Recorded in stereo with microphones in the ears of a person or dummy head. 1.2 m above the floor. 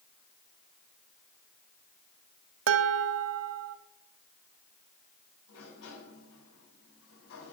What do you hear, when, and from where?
2.7 s dishes clattering: 75° right (ahead or behind), 1.3 m
5.5 s a sliding door: 75° left (ahead or behind), 8.5 m